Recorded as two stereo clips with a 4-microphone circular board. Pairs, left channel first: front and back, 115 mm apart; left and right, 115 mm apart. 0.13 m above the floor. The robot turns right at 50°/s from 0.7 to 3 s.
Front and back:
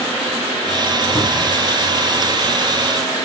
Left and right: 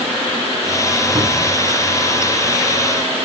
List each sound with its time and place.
1.1 s a cupboard door: 50° right, 3 m; by 1.6 s 30° right, 3 m